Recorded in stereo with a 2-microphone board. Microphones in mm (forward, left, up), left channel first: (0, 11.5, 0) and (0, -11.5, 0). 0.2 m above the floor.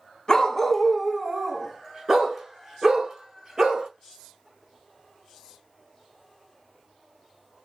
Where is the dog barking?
25° left (ahead or behind), 0.6 m; by 3.9 s 30° right (ahead or behind), 1.9 m.